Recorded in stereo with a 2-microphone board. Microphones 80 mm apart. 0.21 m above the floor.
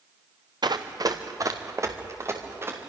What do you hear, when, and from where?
0.6 s running footsteps: 65° right (ahead or behind), 2 m; by 2.9 s 30° right (ahead or behind), 5 m